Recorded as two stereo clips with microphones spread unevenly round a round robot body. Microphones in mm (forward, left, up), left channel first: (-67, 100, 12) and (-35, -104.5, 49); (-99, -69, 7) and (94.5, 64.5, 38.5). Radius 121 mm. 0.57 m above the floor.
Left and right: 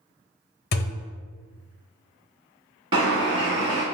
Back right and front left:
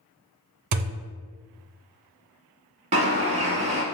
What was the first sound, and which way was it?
A thud, 45° left.